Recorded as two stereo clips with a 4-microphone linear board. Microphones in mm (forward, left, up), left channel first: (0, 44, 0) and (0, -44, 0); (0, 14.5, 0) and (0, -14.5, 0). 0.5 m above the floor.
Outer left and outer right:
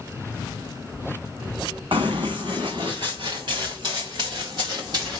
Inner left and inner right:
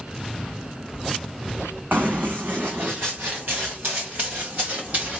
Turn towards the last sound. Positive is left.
turn(degrees=-50)  # may be behind; listen again after turning